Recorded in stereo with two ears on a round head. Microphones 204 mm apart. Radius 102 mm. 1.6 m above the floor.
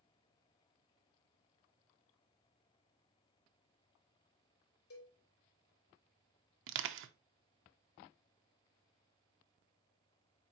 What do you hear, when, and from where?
4.9 s a cowbell: 65° left (ahead or behind), 2.5 m
6.7 s crushing: 60° right (ahead or behind), 0.6 m